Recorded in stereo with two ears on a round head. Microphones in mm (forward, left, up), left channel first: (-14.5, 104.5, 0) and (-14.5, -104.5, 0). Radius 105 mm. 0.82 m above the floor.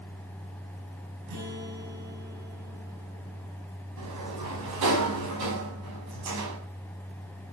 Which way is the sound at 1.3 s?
80° right.